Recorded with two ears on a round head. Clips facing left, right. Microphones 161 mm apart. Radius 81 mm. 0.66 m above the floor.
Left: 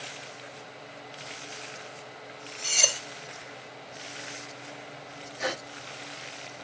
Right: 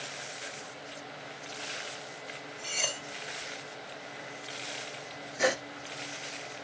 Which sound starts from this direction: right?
A gasp, at 5.4 s.